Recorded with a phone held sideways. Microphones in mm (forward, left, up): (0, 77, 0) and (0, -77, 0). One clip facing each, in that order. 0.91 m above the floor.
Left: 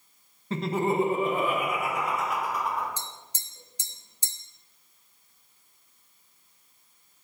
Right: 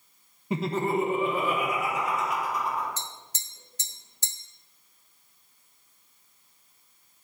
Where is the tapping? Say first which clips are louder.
Even; 15° left (ahead or behind), 0.7 m.